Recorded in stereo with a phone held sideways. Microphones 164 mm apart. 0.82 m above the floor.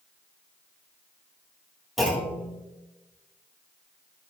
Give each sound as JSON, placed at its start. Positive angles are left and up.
{"t": 2.0, "sound": "a clunk", "side_deg": 0, "distance_m": 1.9}